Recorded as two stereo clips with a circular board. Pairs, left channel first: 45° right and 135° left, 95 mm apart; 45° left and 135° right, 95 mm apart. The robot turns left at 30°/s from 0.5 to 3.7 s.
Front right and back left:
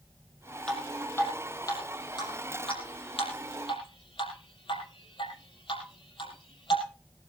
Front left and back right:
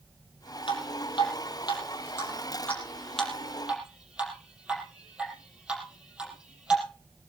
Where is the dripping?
35° left, 5 m; by 6.8 s 55° right, 5 m.